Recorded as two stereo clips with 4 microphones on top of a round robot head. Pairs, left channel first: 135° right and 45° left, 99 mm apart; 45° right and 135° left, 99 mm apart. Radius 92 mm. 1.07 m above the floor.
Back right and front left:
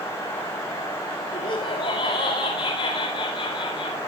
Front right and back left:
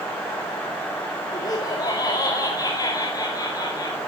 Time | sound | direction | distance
1.3 | laughter | 95° right | 2.5 m